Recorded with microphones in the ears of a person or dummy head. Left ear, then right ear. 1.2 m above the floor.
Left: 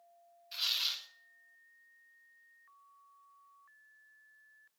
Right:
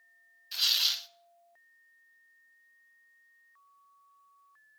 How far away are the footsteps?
I don't hear footsteps.